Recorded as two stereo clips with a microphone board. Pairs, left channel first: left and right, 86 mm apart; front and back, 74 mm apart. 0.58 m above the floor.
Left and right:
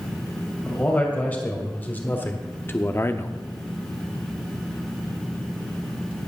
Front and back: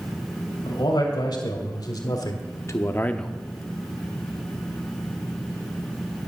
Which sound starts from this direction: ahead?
A man speaking, at 0.7 s.